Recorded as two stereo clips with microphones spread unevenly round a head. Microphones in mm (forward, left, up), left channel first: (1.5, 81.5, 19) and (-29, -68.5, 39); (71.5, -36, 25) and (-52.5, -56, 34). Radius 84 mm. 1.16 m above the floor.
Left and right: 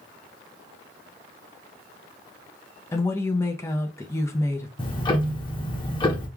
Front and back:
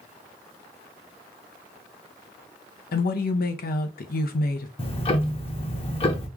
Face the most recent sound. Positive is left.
turn(degrees=35)